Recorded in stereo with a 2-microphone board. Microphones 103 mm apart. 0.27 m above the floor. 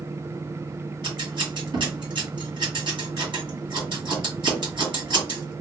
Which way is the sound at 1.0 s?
50° right (ahead or behind).